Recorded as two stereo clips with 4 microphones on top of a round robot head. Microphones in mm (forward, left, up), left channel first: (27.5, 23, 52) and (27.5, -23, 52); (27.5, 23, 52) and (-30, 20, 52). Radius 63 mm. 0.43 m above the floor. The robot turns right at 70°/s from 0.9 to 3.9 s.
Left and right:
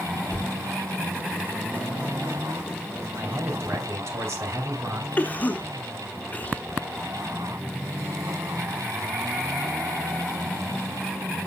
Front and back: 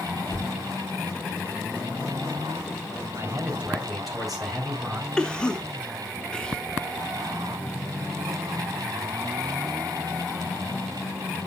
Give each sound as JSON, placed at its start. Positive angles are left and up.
{"t": 0.3, "sound": "a cupboard door", "azimuth_deg": 40, "distance_m": 2.5}
{"t": 3.1, "sound": "a man speaking", "azimuth_deg": -140, "distance_m": 2.5}
{"t": 5.2, "sound": "a cough", "azimuth_deg": 70, "distance_m": 0.9}